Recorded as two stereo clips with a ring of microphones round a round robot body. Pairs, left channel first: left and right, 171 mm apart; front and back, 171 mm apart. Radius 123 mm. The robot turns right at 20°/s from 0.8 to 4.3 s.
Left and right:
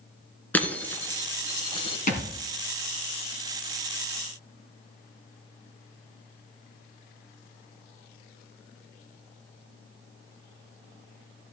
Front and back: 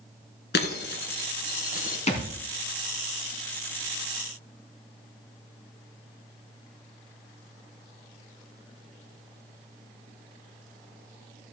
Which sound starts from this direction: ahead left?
A thud, at 2.1 s.